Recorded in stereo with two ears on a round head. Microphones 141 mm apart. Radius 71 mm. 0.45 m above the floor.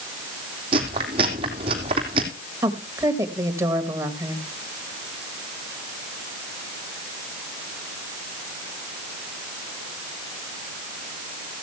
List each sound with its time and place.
0.7 s chewing: 35° right (ahead or behind), 3 m
2.6 s a woman speaking: 20° right (ahead or behind), 2.5 m